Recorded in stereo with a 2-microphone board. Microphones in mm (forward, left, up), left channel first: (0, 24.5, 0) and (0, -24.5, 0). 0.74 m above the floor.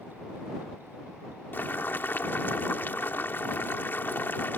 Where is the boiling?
45° left (ahead or behind).